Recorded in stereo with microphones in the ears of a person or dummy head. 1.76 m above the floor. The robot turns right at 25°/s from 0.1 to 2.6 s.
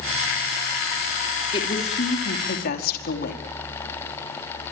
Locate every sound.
1.5 s a woman speaking: 25° left (ahead or behind), 4.5 m; by 3.4 s 50° left (ahead or behind), 4.5 m